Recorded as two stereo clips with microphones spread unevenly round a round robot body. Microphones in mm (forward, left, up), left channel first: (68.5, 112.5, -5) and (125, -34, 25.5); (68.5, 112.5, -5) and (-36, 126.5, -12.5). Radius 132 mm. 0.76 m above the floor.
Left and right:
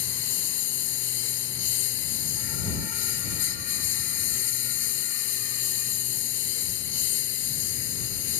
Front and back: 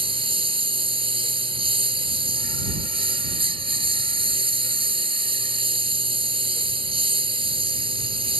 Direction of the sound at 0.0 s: 130° left.